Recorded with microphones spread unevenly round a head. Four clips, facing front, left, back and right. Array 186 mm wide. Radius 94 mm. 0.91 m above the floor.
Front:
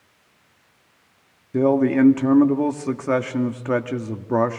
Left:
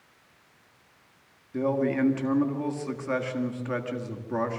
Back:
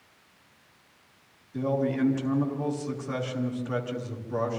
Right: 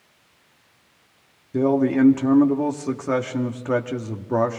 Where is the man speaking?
30° right, 1.8 m.